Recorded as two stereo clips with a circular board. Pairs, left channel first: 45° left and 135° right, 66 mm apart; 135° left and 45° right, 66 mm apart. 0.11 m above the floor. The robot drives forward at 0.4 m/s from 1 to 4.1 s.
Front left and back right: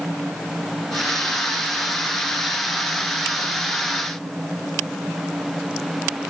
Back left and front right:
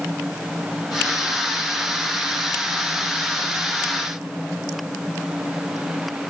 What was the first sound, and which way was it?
Only background noise.